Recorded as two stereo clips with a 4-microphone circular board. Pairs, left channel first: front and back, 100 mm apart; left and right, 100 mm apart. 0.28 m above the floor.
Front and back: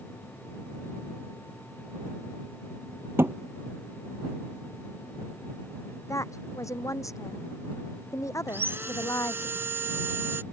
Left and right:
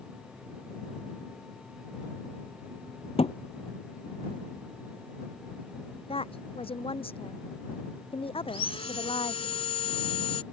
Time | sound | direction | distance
3.2 | a thud | 110° left | ?
6.1 | a woman speaking | 60° left | ?
8.5 | sawing | 110° left | ?